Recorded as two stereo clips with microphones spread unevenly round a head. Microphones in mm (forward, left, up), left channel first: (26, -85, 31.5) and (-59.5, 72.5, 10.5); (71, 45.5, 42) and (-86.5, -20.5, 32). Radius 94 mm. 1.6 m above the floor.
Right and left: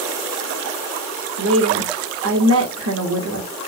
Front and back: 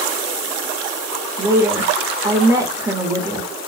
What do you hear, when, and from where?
1.4 s a woman speaking: 130° left, 0.9 m